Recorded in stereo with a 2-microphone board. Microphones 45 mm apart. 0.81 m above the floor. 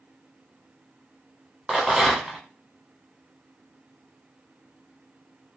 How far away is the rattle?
About 0.8 m.